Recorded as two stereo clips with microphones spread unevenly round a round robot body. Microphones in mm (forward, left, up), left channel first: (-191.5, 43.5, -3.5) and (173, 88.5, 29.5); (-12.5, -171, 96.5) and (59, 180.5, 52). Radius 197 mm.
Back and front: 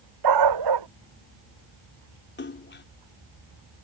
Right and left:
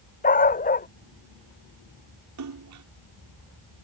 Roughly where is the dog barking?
Ahead right.